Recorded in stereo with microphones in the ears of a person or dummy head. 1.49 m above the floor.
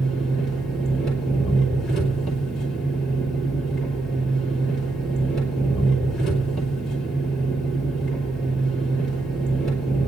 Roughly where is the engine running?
Centre.